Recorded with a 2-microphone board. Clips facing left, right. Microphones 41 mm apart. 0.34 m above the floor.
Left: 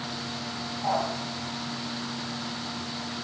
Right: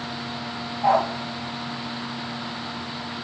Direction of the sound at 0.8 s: 80° right.